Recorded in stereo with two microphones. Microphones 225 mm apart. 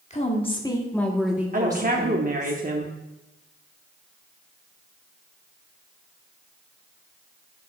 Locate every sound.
0.1 s a woman speaking: 30° left (ahead or behind), 1.2 m; by 2.5 s 35° right (ahead or behind), 1.3 m
1.5 s a woman speaking: 40° right (ahead or behind), 0.7 m